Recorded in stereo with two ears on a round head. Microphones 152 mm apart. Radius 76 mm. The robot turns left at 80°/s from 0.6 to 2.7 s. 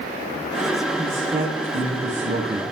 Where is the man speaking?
15° left, 5 m; by 2.6 s 115° right, 5 m.